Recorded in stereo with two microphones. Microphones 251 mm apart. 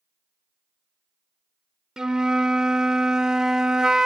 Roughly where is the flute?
Centre.